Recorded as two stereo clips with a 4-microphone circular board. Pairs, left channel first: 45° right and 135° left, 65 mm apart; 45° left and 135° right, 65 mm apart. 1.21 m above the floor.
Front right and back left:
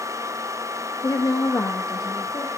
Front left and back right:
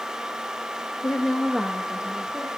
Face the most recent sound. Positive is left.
turn(degrees=-60)